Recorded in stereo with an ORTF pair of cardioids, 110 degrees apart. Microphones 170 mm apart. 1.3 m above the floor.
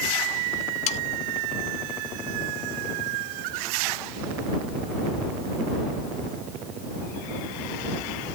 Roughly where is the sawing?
Ahead left.